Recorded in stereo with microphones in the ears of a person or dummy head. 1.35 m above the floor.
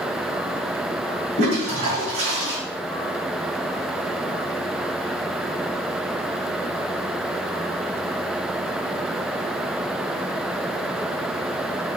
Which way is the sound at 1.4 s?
40° right (ahead or behind).